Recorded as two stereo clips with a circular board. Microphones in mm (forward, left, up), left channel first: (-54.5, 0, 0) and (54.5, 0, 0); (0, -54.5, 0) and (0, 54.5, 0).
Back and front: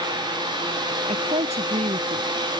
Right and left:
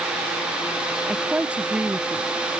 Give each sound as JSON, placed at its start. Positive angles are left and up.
{"t": 1.1, "sound": "a woman speaking", "azimuth_deg": 10}